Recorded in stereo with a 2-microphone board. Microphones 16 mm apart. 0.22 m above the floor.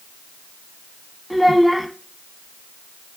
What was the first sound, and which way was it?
A child speaking, 5° right (ahead or behind).